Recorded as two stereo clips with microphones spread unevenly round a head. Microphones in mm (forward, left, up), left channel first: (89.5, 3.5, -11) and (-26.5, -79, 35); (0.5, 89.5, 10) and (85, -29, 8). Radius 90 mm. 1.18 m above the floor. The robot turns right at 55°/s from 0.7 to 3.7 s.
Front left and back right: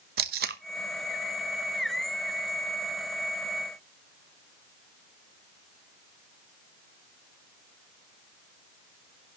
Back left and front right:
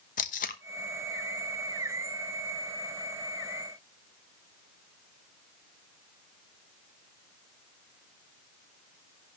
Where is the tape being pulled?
175° left, 0.9 m.